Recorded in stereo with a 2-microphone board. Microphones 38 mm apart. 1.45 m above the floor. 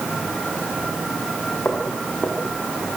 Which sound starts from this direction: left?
Footsteps, at 1.6 s.